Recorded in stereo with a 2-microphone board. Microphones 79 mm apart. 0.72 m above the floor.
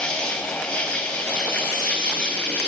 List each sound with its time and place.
0.0 s an insect: 15° left (ahead or behind), 4.5 m